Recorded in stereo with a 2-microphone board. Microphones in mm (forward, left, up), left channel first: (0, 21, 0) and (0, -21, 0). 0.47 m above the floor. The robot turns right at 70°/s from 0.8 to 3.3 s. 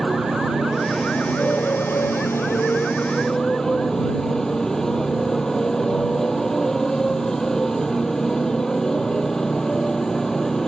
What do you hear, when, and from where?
0.0 s a motorcycle: 5° right; by 10.7 s 170° left